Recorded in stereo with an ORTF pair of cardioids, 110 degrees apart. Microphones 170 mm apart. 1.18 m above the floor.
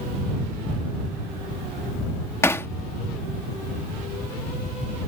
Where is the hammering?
15° left.